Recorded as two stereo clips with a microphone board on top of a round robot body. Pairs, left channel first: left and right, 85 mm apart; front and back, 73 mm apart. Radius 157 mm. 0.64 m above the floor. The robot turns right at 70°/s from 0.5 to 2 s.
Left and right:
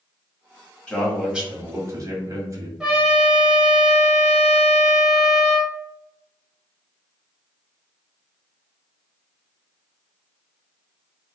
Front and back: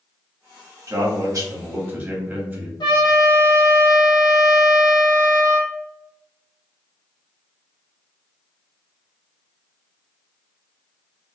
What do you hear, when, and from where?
0.9 s a man speaking: 165° left, 1.2 m; by 2.7 s 120° right, 1.2 m
2.8 s a trumpet: 10° right, 0.7 m